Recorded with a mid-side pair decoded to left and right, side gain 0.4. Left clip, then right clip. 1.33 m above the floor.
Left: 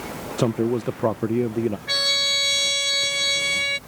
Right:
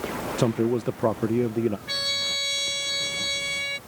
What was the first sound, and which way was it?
A man speaking, 5° left.